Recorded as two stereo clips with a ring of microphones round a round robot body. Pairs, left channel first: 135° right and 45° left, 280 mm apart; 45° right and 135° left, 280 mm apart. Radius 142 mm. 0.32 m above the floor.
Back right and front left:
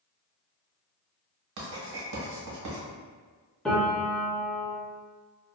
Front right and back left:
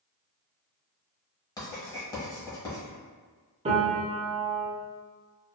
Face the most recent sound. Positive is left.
turn(degrees=140)